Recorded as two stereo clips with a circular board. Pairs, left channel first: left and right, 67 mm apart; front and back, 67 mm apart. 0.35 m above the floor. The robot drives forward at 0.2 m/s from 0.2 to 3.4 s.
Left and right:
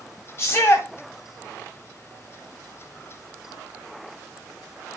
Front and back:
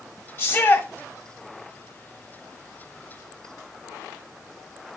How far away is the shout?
About 1.6 m.